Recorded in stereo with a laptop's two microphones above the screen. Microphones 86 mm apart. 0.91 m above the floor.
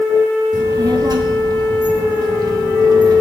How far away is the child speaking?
About 0.8 m.